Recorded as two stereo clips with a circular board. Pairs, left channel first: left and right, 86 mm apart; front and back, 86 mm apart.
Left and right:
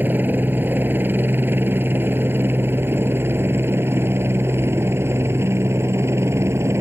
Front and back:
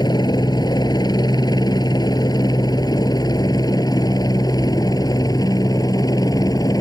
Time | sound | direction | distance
0.0 | a helicopter | 25° right | ?